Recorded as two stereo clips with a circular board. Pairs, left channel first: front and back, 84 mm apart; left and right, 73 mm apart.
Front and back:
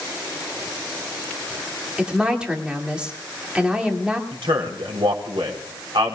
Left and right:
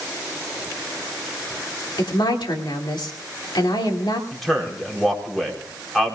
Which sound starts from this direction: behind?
A man speaking, at 4.3 s.